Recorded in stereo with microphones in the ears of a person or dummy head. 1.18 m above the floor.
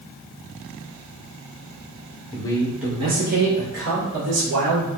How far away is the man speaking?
About 0.5 m.